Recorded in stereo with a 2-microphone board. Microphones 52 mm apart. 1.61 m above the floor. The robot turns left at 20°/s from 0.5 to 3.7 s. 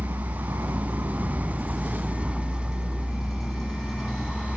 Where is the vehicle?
120° right; by 4.6 s 175° left.